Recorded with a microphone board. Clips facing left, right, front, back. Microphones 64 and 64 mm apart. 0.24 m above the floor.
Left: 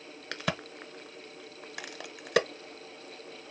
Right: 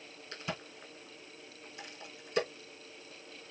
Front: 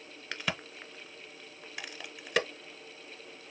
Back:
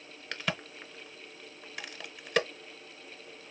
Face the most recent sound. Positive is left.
turn(degrees=85)